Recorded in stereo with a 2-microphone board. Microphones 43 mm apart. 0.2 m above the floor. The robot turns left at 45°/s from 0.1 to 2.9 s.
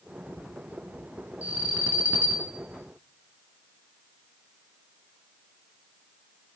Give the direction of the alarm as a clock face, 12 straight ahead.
2 o'clock.